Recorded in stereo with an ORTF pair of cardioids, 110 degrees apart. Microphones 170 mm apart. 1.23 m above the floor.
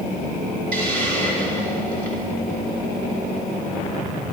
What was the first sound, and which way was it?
A hiss, 65° right.